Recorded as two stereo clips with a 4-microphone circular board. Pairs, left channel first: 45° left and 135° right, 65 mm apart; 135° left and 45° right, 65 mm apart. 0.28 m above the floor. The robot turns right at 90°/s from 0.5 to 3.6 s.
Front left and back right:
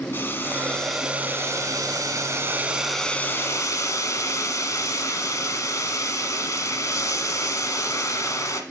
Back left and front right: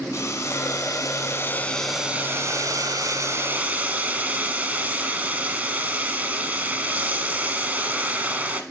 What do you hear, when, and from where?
0.1 s boiling: 100° left, 1.0 m; by 8.6 s 15° left, 1.0 m